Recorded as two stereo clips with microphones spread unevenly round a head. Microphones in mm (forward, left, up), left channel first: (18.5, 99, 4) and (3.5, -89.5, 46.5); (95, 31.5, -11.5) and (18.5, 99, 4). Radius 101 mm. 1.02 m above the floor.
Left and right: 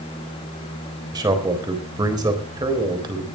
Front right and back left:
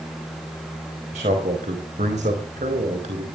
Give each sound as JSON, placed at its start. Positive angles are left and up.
{"t": 1.1, "sound": "a man speaking", "azimuth_deg": -165, "distance_m": 4.0}